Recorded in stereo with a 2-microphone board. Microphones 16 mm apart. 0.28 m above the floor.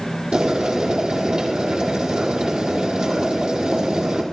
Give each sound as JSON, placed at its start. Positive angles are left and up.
{"t": 0.3, "sound": "boiling", "side_deg": -75, "distance_m": 5.0}